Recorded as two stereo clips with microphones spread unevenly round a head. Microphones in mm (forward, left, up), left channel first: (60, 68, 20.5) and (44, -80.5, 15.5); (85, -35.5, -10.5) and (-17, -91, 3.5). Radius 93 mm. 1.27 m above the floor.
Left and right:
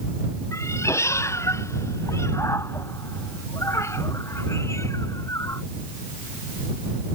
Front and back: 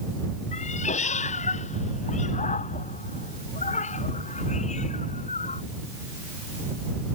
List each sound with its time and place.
0.5 s a cat meowing: 10° left